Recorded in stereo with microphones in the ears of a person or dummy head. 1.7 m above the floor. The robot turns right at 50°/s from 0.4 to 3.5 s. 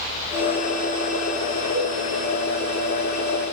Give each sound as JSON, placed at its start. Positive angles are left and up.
{"t": 1.7, "sound": "a cowbell", "side_deg": -85, "distance_m": 0.9}